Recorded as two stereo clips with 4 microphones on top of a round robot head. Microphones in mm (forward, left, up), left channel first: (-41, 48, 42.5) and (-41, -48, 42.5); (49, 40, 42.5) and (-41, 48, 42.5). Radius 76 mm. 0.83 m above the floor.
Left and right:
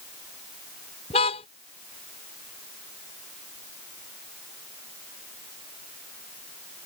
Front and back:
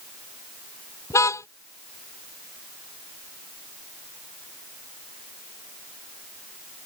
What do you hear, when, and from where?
1.1 s a car horn: 50° left